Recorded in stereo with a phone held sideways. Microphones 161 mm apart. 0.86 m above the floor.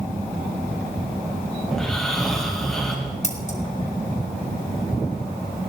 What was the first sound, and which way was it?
Snoring, centre (ahead or behind).